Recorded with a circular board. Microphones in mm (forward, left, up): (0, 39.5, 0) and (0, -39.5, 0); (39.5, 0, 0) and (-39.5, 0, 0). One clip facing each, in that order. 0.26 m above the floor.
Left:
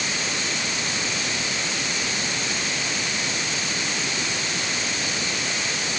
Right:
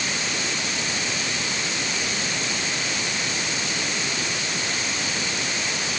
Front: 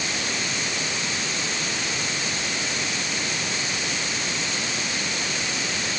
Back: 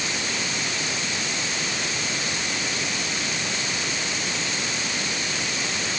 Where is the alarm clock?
I don't hear an alarm clock.